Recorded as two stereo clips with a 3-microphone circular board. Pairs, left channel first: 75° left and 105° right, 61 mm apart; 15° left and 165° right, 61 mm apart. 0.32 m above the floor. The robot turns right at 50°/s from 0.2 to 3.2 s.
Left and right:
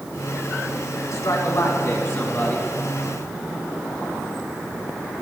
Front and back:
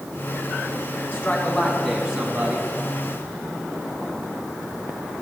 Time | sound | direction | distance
1.1 | a man speaking | 65° left | 3 m